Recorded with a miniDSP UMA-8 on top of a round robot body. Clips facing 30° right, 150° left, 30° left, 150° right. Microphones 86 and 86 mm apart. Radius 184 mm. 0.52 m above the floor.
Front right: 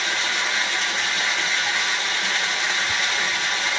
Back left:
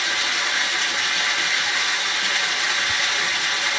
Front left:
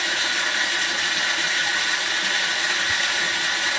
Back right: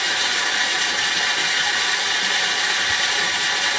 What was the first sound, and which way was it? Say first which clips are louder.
Running water: even, back right 1 dB; 125° right.